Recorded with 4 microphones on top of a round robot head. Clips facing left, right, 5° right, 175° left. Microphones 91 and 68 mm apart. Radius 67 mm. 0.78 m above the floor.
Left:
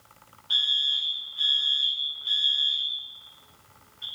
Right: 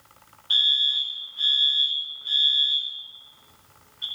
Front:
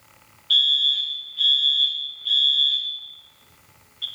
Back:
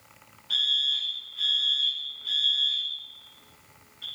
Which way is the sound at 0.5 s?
175° right.